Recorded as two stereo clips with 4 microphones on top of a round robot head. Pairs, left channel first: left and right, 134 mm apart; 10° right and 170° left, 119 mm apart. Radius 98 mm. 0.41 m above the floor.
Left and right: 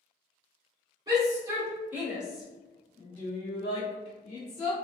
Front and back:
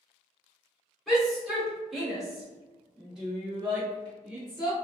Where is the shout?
100° right, 1.6 m; by 4.8 s 85° left, 1.9 m.